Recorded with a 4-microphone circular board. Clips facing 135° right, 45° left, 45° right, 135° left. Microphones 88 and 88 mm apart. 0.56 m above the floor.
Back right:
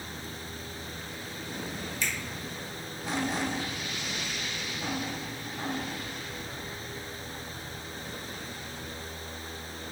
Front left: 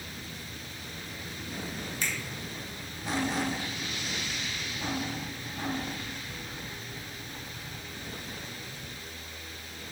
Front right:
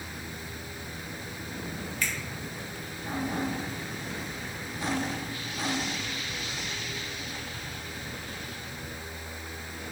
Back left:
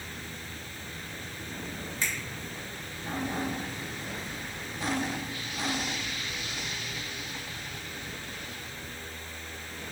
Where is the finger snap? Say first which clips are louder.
Back right 1 dB, front right 1 dB; 75° left, 1.8 m.